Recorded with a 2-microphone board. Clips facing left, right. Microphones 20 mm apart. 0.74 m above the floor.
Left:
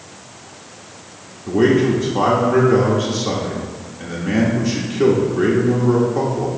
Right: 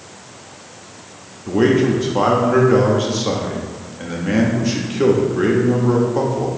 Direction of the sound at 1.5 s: 10° right (ahead or behind).